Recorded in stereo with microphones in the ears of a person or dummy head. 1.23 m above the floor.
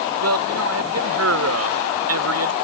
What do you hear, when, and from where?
0.2 s a man speaking: 85° right